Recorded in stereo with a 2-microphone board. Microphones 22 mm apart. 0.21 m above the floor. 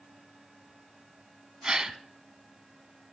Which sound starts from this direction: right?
A gasp, at 1.6 s.